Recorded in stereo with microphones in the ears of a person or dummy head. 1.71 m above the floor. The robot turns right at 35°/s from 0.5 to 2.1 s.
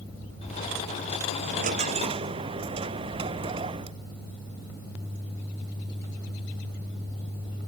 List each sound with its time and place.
1.4 s a dropped coin: 55° right (ahead or behind); by 4.0 s 35° right (ahead or behind)